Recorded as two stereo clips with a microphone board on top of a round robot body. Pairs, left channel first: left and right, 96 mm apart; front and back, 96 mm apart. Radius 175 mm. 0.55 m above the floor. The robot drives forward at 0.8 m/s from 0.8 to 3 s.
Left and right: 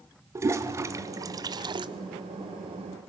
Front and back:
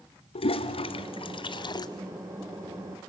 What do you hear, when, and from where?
0.3 s a toilet flushing: 30° right, 1.8 m; by 1.9 s 50° right, 1.1 m